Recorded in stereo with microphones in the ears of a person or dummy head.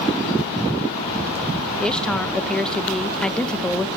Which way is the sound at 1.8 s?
Centre (ahead or behind).